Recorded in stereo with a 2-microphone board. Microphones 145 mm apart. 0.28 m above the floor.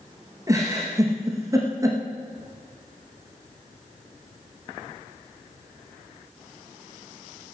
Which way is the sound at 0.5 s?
25° right (ahead or behind).